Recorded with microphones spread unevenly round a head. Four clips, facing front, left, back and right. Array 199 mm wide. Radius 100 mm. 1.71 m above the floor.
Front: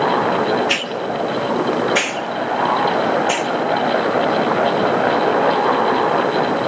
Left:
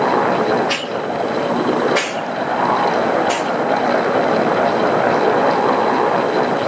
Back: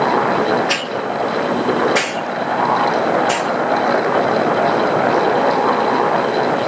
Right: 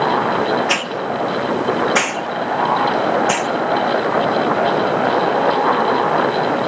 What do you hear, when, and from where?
0.7 s a hiss: 95° right, 1.2 m